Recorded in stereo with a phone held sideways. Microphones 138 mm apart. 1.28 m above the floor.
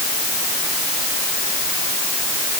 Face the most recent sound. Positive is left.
No sound to turn to.